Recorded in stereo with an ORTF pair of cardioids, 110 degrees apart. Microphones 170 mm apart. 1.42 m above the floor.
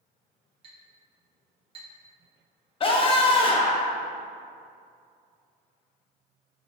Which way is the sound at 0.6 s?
30° right.